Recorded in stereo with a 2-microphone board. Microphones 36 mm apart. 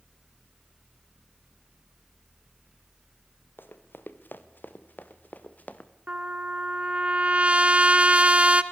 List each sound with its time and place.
3.6 s running footsteps: 75° left (ahead or behind), 2.5 m; by 5.9 s 45° left (ahead or behind), 2 m
6.1 s a trumpet: 35° right (ahead or behind), 0.9 m